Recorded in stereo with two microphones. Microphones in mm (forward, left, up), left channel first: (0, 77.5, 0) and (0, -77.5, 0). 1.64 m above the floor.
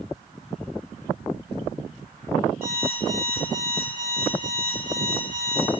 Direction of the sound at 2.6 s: 65° right (ahead or behind).